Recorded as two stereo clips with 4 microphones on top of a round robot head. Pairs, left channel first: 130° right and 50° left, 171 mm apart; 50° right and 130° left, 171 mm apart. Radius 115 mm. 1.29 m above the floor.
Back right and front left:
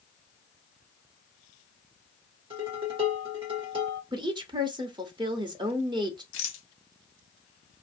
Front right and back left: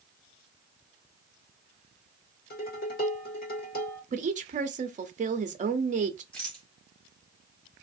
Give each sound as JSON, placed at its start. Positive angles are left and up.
{"t": 2.5, "sound": "dishes clattering", "azimuth_deg": -10, "distance_m": 1.4}
{"t": 4.1, "sound": "a woman speaking", "azimuth_deg": 105, "distance_m": 0.6}
{"t": 6.3, "sound": "a rattle", "azimuth_deg": -135, "distance_m": 0.5}